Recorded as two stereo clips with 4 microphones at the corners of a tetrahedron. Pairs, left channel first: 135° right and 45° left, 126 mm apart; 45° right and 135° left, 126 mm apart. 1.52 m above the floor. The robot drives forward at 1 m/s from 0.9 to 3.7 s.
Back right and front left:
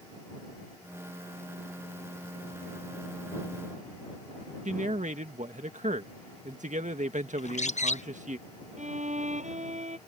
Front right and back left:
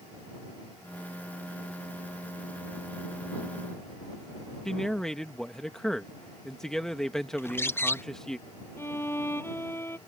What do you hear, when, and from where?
4.7 s a man speaking: 40° left
7.4 s a bird: 115° right
8.8 s a violin: 25° left